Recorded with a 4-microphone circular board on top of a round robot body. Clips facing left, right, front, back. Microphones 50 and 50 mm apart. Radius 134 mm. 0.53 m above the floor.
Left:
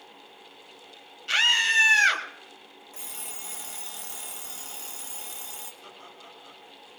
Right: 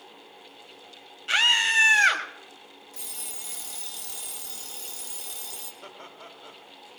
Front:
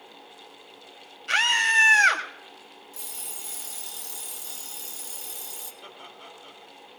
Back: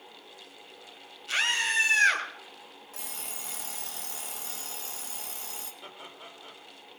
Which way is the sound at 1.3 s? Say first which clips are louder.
Even, front 6 dB; 20° right.